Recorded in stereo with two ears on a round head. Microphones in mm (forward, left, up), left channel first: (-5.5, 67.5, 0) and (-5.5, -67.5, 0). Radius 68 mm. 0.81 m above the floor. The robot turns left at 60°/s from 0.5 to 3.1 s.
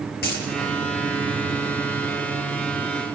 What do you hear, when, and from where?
0.2 s a dropped coin: 70° left (ahead or behind), 6.5 m